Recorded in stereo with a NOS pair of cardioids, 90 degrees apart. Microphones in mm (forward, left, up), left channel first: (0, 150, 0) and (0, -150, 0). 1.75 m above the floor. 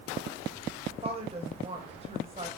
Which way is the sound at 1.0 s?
20° right.